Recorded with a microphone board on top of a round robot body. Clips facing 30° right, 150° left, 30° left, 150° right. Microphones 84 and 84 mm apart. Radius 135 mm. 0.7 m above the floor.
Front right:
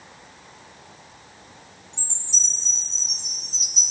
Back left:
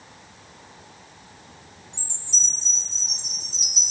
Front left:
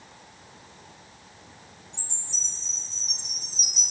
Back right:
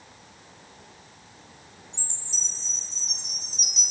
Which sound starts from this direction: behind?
A chime, at 1.9 s.